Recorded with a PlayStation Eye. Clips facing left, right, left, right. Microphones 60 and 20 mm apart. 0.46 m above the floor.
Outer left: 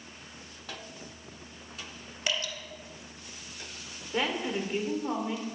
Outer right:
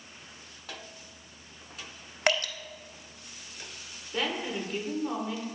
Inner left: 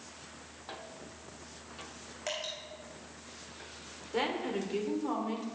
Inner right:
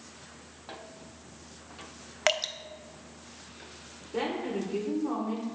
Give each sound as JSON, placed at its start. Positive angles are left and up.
{"t": 2.3, "sound": "dripping", "side_deg": -60, "distance_m": 0.5}
{"t": 4.1, "sound": "a woman speaking", "side_deg": 20, "distance_m": 1.3}